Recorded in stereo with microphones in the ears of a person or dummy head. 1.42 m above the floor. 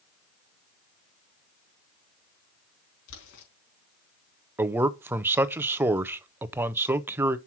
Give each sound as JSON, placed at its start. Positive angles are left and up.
{"t": 3.1, "sound": "boiling", "side_deg": 80, "distance_m": 4.0}
{"t": 4.6, "sound": "a man speaking", "side_deg": -10, "distance_m": 0.5}